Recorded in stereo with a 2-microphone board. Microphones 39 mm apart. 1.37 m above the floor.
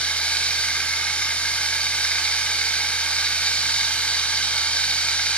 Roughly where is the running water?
Left.